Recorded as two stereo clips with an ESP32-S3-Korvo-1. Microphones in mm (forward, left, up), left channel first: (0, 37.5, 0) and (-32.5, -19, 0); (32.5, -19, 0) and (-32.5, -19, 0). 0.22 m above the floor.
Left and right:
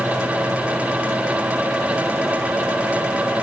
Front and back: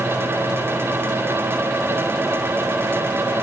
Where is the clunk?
No clunk in this recording.